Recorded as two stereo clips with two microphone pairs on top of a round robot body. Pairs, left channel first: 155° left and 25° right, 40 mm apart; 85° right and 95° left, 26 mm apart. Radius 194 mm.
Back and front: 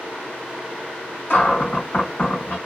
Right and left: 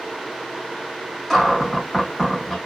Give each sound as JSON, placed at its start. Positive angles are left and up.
{"t": 1.3, "sound": "a cupboard door", "azimuth_deg": -175, "distance_m": 1.5}